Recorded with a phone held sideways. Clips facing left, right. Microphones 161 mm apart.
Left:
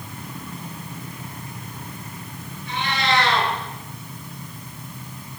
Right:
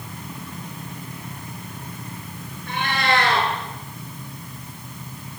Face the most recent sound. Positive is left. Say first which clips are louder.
# right 1 dB
turn(degrees=-55)  # may be behind; listen again after turning